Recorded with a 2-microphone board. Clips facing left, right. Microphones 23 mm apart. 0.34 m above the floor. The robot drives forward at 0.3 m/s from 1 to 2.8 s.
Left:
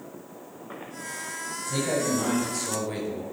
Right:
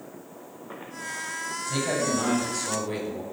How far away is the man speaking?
About 2.5 m.